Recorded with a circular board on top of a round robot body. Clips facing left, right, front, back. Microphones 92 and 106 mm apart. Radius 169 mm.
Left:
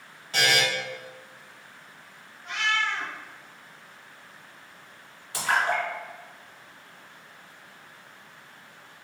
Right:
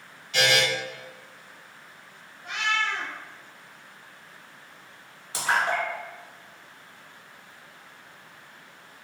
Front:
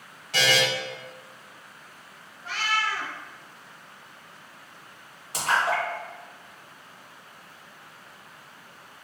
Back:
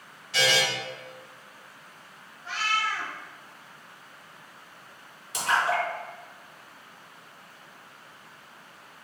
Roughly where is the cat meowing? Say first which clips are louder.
Even, front 1 dB; ahead right.